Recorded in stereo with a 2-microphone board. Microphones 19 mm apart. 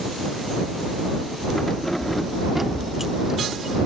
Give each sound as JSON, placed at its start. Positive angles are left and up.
{"t": 1.6, "sound": "keys jangling", "side_deg": 30}